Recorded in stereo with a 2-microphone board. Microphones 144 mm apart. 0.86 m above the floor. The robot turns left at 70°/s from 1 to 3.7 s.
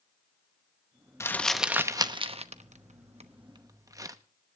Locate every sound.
1.2 s crumpling: 20° left (ahead or behind), 0.9 m; by 4.2 s 25° right (ahead or behind), 0.9 m